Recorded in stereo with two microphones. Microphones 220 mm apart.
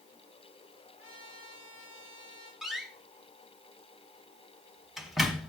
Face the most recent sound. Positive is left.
turn(degrees=0)  # may be behind; listen again after turning